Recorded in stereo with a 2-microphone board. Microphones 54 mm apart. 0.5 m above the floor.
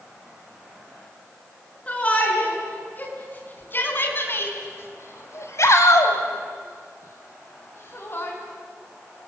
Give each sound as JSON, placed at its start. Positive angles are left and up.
{"t": 1.9, "sound": "a shout", "side_deg": 25, "distance_m": 7.5}